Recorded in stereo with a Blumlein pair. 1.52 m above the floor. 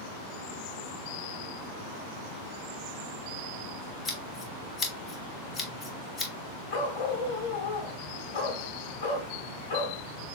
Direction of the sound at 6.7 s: 50° left.